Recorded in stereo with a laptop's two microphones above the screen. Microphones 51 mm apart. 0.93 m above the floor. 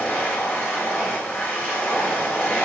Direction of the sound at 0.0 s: 35° left (ahead or behind).